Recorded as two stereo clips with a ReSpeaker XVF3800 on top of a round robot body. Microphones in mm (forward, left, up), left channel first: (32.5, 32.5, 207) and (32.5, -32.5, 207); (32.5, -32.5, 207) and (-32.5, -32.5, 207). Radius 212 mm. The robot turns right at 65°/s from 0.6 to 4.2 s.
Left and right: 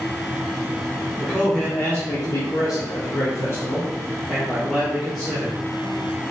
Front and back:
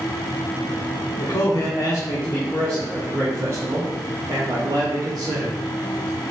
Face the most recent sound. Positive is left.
turn(degrees=175)